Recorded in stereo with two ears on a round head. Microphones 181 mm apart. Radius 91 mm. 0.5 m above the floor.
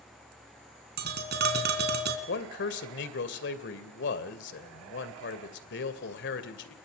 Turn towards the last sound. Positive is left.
turn(degrees=60)  # may be behind; listen again after turning